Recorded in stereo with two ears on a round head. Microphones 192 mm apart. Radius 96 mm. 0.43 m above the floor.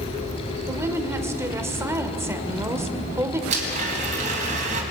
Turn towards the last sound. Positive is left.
turn(degrees=-35)  # may be behind; listen again after turning